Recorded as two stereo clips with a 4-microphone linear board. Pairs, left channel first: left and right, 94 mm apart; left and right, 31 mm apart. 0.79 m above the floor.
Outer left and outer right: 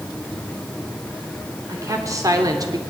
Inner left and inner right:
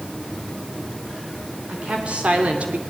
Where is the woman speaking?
35° right (ahead or behind), 3.5 m; by 2.8 s 45° right (ahead or behind), 1.9 m.